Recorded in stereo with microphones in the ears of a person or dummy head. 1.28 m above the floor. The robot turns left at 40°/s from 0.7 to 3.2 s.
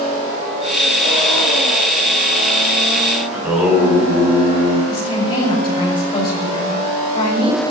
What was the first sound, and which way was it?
Singing, 10° right (ahead or behind).